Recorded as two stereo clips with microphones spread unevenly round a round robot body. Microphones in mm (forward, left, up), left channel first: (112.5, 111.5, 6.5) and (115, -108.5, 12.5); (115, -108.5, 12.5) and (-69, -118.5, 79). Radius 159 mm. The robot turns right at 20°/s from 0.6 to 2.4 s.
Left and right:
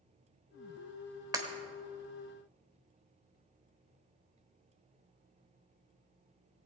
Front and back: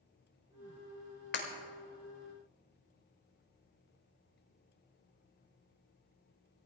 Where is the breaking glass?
15° right, 1.8 m.